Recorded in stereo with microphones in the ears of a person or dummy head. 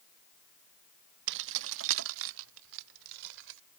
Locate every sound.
1.3 s keys jangling: 60° right (ahead or behind); by 3.6 s 70° right (ahead or behind)